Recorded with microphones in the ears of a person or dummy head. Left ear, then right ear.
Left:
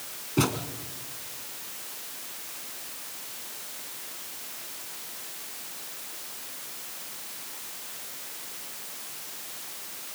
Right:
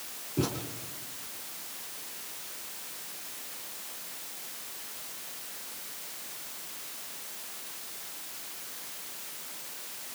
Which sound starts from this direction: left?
A thud, at 0.4 s.